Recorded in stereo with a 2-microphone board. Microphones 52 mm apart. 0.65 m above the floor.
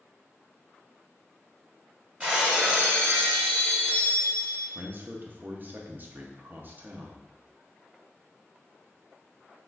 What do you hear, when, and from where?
2.2 s breaking glass: 30° right (ahead or behind), 1.2 m
4.8 s a man speaking: 40° right (ahead or behind), 0.7 m